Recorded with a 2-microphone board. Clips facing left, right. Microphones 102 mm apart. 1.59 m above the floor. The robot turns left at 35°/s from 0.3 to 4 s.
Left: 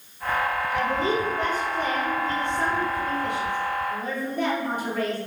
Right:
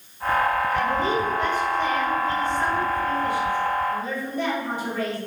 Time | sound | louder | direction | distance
0.7 | a woman speaking | right 1 dB | 170° left | 4 m